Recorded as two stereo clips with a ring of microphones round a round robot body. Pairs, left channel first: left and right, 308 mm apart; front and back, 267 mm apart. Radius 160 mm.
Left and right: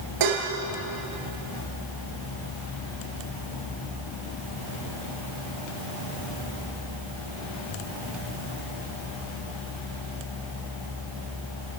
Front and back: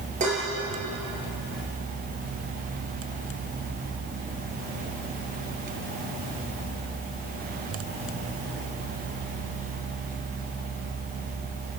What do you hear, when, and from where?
0.2 s dishes clattering: 110° right, 4 m